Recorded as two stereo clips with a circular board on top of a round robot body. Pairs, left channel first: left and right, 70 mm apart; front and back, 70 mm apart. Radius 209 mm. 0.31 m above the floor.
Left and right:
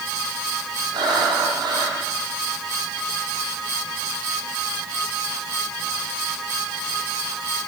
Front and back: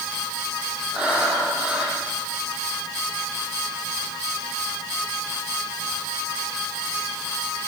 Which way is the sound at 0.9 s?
105° right.